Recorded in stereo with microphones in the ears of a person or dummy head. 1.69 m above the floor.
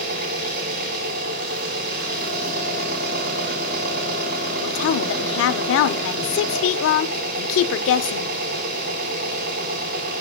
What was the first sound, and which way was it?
An engine running, 50° right (ahead or behind).